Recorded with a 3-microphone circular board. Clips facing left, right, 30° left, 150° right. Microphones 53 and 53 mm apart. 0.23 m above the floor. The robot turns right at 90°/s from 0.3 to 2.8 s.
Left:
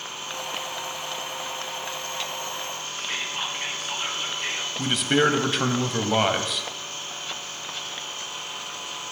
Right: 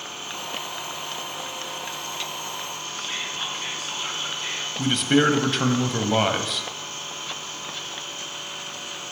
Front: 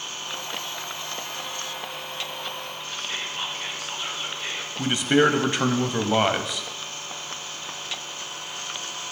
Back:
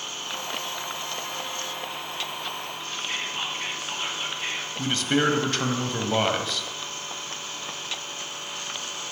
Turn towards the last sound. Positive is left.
turn(degrees=5)